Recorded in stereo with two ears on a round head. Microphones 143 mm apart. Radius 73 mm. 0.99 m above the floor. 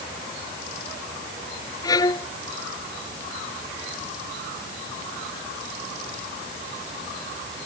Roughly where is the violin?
Left.